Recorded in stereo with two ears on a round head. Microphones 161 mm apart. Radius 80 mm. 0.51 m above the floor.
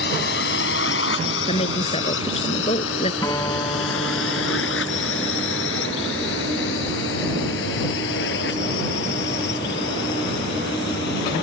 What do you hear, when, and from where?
0.0 s a drone: 65° left (ahead or behind)
1.5 s a woman speaking: 35° left (ahead or behind)
3.2 s a guitar: 20° left (ahead or behind)